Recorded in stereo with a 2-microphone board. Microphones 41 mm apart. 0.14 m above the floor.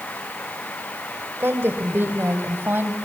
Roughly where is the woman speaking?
Right.